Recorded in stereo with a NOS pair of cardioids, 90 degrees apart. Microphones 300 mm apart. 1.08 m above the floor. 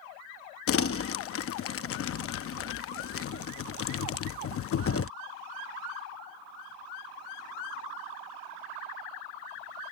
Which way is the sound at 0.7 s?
50° left.